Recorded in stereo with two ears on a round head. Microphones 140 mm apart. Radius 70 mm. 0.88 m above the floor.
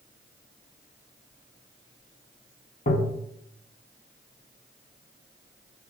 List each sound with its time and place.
2.9 s tapping: 60° left (ahead or behind), 1.3 m